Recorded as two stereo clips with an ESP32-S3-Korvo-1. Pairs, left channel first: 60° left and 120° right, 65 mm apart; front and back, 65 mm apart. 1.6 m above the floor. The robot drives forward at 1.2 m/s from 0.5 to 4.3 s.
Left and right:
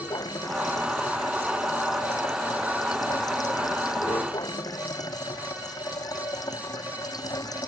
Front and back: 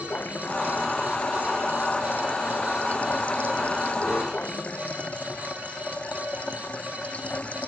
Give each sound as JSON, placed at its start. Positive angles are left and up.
{"t": 0.0, "sound": "running water", "azimuth_deg": 60}